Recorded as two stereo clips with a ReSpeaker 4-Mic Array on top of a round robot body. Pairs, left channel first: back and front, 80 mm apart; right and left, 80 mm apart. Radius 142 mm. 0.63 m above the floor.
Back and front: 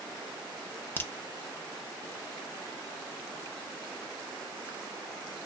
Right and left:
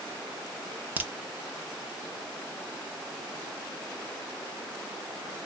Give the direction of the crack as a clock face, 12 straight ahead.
7 o'clock.